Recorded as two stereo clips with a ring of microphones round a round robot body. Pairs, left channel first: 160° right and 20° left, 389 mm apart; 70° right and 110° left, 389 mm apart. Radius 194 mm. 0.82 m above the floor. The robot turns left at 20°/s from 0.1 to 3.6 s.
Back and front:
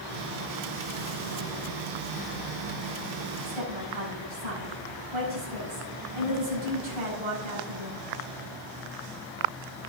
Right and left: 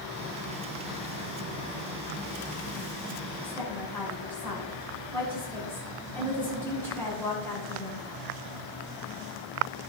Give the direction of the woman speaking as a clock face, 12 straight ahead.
11 o'clock.